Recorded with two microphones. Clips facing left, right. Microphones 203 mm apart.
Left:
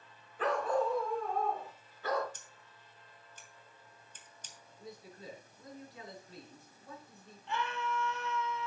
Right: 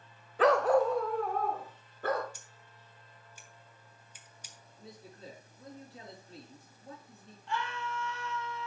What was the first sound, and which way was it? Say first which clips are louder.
A dog barking: right 7 dB; 80° right.